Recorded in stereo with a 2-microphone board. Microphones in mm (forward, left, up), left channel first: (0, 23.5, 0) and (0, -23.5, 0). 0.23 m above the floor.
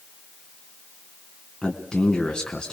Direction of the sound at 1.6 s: 20° left (ahead or behind).